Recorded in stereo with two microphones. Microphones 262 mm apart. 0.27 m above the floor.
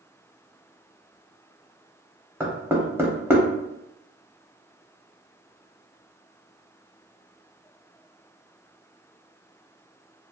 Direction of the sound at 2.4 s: 10° right (ahead or behind).